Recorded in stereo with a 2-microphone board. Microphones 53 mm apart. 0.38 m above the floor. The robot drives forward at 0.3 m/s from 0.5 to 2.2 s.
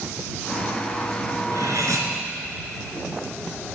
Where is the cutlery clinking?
85° right, 3 m; by 2.1 s 80° right, 3 m.